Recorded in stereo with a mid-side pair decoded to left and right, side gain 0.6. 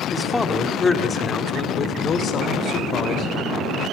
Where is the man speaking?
10° left, 2.5 m; by 3.3 s 55° left, 4 m.